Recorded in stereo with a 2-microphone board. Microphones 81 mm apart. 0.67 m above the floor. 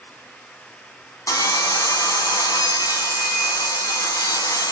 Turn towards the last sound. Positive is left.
turn(degrees=40)  # may be behind; listen again after turning